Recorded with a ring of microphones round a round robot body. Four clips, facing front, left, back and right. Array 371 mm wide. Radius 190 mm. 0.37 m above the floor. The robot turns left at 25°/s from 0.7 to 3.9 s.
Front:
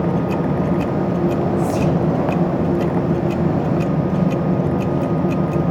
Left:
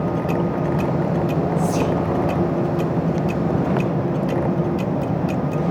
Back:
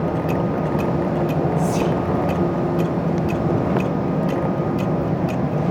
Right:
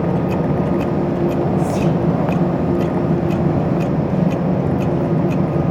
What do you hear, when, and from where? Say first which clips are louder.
1.6 s whispering: right 2 dB, front 2 dB; 70° left, 8.5 m; by 2.0 s 60° left, 8.5 m